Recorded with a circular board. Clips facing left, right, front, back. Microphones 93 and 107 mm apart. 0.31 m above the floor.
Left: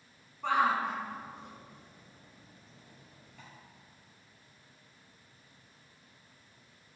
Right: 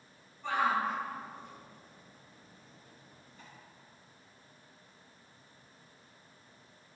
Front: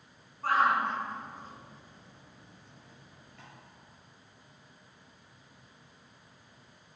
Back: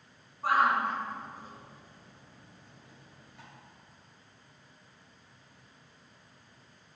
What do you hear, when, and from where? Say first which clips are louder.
0.4 s a shout: left 2 dB, even; 105° left, 4 m; by 3.5 s 100° left, 7.5 m